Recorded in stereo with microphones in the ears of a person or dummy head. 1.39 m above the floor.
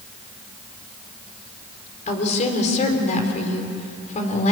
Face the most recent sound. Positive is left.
turn(degrees=40)  # may be behind; listen again after turning